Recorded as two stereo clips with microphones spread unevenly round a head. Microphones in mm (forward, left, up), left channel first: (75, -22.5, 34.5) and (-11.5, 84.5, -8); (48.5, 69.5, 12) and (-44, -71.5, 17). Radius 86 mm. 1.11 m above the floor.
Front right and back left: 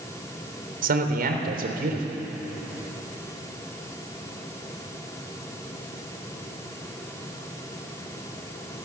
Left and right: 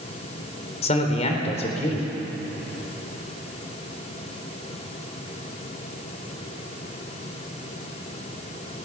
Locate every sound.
0.8 s a man speaking: 110° left, 3.5 m